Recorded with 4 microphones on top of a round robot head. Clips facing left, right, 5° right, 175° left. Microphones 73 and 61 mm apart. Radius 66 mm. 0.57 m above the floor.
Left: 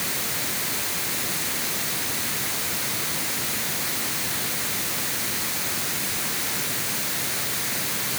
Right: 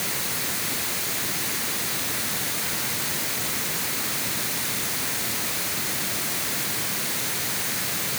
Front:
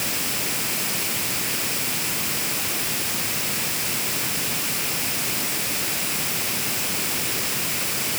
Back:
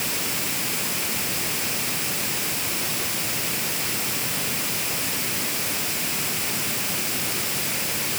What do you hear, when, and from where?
Only background noise.